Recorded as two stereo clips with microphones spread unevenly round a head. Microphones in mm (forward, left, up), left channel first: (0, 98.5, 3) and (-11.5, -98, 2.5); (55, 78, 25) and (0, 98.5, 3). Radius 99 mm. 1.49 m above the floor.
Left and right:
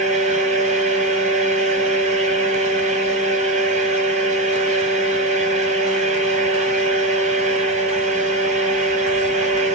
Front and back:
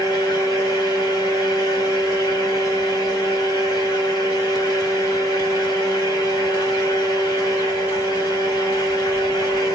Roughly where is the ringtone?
I don't hear a ringtone.